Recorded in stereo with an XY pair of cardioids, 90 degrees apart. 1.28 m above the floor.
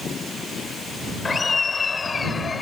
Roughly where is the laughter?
Ahead left.